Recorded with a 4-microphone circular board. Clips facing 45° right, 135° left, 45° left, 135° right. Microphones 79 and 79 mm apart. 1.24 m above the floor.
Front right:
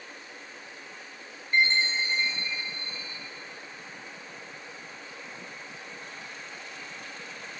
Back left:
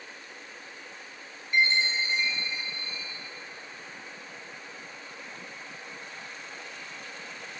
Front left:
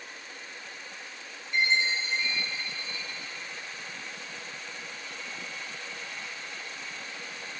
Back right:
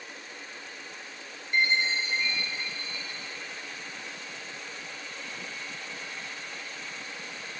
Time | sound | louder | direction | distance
1.5 | a chime | even, even | 100° right | 4 m